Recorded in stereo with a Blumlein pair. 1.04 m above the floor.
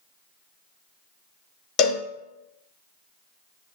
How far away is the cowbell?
About 0.8 m.